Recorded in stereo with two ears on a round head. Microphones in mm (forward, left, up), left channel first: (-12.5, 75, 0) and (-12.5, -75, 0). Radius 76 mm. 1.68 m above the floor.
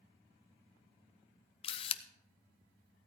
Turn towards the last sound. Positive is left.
turn(degrees=35)  # may be behind; listen again after turning